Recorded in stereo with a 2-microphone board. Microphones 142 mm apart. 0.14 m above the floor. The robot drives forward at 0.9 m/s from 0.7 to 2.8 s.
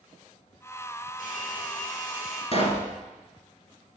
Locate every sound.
1.2 s a hair dryer: 70° left (ahead or behind), 3.5 m; by 2.4 s 55° left (ahead or behind), 4 m
2.5 s a pop: 45° left (ahead or behind), 1.4 m; by 2.9 s 50° left (ahead or behind), 1.3 m